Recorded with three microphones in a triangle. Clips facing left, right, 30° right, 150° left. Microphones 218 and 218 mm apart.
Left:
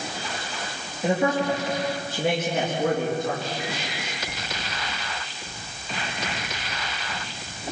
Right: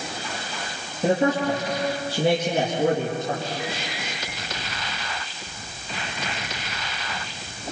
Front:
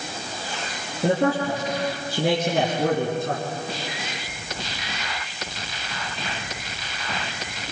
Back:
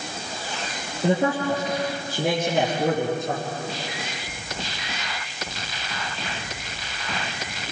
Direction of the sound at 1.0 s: 40° right.